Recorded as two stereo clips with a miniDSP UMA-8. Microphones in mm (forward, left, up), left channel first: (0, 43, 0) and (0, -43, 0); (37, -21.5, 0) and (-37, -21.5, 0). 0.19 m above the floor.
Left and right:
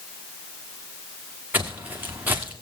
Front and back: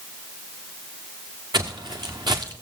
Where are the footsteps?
160° right, 1.3 m.